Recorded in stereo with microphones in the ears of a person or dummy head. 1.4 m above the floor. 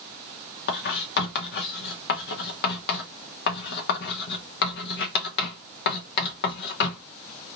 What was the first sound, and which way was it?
Writing, 60° left (ahead or behind).